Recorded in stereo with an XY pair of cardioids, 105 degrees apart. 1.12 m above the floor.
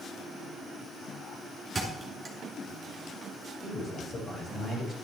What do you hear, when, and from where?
1.8 s a thud: 25° right, 3 m
3.6 s a man speaking: 50° left, 5.5 m